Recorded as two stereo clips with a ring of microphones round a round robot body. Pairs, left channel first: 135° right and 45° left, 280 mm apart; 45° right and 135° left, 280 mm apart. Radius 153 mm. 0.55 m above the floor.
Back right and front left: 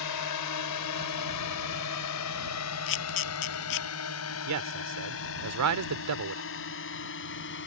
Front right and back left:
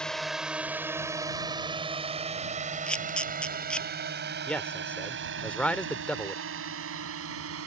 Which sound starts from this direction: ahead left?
A man speaking, at 4.5 s.